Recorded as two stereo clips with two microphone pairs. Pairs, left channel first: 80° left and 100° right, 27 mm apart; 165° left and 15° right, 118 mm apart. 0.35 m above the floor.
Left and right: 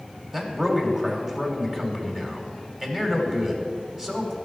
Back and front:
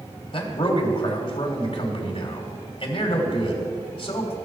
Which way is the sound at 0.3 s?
165° right.